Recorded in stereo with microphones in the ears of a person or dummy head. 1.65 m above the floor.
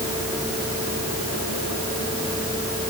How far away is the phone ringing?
I don't hear a phone ringing.